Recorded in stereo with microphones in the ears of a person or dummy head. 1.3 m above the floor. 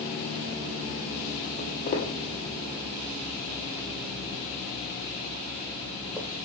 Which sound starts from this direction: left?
Footsteps, at 1.6 s.